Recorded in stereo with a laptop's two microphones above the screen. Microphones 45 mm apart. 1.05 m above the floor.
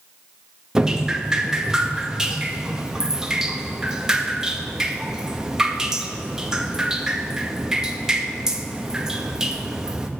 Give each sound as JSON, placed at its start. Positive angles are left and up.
{"t": 0.8, "sound": "dripping", "side_deg": -15, "distance_m": 1.4}